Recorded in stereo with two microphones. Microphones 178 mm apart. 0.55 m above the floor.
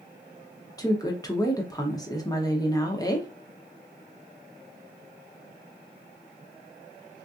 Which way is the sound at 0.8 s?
20° left (ahead or behind).